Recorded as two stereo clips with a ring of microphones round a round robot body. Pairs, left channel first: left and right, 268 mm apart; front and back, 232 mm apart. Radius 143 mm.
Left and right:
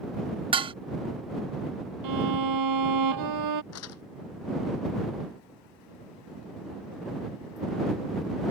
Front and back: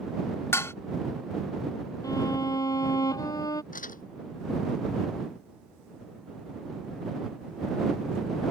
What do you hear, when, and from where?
0.5 s dishes clattering: 60° right
2.0 s a violin: 80° right
3.7 s crumpling: 55° left